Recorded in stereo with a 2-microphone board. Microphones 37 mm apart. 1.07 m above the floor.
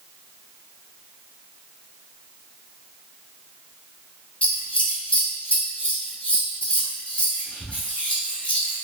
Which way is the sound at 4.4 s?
35° left (ahead or behind).